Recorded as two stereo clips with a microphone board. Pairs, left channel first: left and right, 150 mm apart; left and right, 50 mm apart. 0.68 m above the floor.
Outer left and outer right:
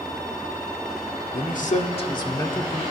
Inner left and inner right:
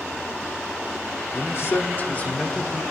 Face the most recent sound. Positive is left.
turn(degrees=5)  # may be behind; listen again after turning